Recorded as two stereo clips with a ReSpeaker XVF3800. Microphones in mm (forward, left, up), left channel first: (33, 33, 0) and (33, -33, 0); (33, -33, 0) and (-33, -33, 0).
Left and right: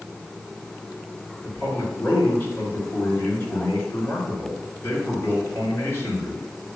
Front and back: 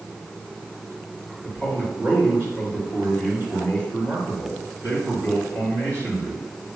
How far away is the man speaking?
About 2.5 m.